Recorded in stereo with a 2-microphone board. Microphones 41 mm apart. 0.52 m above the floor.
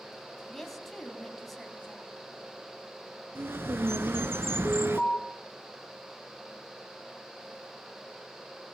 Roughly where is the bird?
Right.